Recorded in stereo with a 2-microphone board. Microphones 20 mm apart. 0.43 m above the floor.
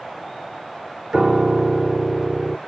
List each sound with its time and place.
1.1 s a piano: 30° right (ahead or behind)